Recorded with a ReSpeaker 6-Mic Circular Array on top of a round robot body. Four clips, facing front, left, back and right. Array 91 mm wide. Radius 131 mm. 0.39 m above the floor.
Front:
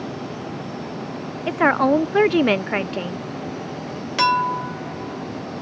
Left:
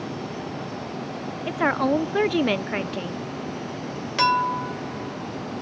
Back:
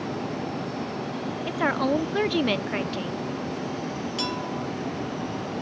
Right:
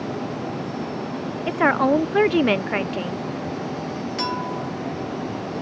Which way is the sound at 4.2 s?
30° left.